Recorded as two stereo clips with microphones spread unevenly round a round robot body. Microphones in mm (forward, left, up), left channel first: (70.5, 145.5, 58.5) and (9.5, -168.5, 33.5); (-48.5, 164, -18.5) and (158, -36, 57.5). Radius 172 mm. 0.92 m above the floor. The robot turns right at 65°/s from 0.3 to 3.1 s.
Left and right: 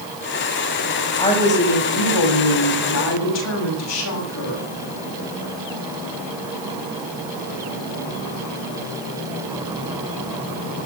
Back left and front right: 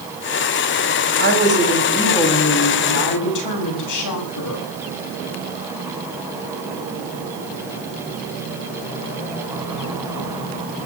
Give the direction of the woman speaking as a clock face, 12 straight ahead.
12 o'clock.